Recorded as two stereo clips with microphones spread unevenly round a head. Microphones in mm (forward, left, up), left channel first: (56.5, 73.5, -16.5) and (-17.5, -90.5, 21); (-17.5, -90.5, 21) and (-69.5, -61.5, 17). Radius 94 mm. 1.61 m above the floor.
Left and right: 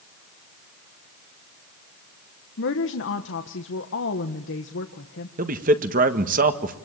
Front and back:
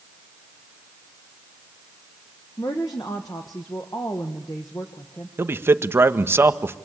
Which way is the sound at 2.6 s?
40° left.